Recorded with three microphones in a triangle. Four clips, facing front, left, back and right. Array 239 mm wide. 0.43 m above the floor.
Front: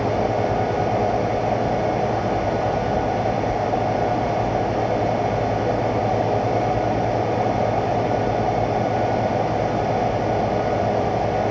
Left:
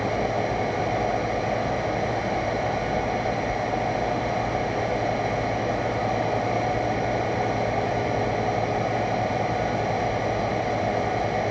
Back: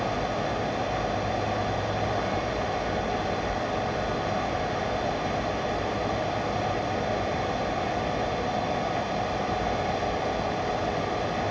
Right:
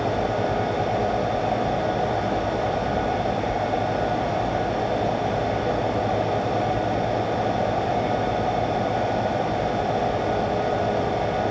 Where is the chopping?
No chopping in this recording.